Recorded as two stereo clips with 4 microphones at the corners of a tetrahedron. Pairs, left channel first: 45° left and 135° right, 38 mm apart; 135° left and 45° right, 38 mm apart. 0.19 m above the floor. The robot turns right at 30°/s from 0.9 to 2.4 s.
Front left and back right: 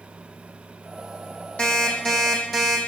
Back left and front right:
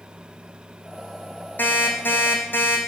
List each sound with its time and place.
1.6 s an alarm clock: 105° left, 3.5 m; by 2.8 s 130° left, 3.5 m